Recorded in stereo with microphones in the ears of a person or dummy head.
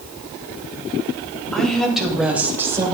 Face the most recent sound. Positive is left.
turn(degrees=-20)  # may be behind; listen again after turning